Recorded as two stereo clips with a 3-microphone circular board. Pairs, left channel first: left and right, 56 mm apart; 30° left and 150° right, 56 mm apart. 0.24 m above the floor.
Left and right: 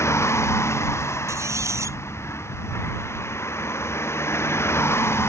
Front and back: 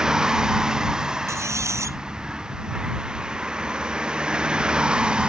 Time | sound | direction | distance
0.0 | a vehicle | 130° left | ?
1.3 | a squeak | 120° right | ?